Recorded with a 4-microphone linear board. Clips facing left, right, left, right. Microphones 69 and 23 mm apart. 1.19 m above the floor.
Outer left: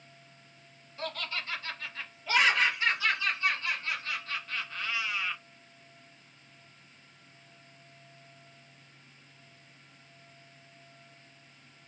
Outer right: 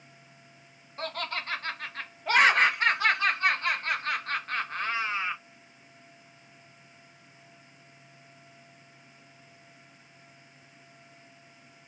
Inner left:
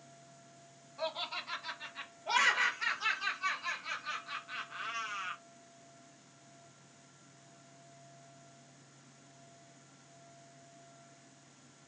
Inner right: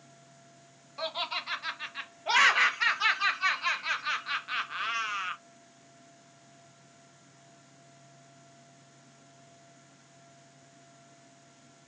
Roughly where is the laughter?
Right.